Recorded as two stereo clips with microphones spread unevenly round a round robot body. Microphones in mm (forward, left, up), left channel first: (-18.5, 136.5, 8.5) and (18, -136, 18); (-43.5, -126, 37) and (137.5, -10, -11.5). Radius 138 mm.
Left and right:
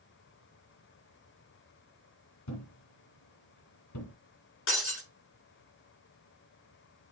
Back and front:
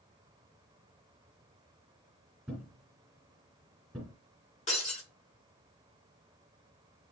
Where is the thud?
125° left, 2 m.